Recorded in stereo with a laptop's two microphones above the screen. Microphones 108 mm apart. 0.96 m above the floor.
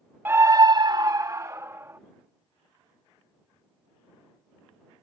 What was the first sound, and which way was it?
A scream, 20° right (ahead or behind).